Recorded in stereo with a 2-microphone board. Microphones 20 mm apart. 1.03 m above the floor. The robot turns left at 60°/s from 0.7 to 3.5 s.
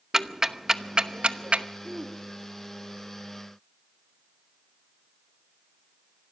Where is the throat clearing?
Centre (ahead or behind), 1.8 m; by 2.2 s 25° right (ahead or behind), 1.8 m.